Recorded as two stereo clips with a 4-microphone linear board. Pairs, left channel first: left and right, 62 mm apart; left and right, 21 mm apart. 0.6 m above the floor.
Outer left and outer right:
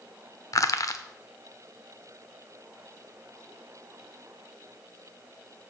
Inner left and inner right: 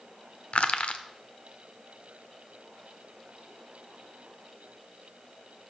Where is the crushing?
65° left (ahead or behind), 0.6 m.